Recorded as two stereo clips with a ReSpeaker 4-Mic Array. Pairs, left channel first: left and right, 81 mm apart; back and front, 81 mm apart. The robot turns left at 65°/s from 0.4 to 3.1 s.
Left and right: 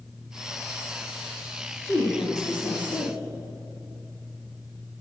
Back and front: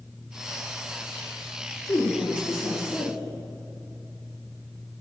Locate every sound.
1.9 s a woman speaking: 155° left, 3 m; by 3.2 s 70° left, 3 m